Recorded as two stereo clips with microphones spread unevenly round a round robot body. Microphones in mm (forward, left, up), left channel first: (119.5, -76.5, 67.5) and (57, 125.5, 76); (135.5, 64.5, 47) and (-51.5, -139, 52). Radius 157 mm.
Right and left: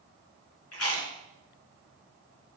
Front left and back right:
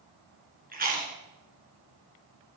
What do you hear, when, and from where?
0.7 s chewing: 75° right, 2.5 m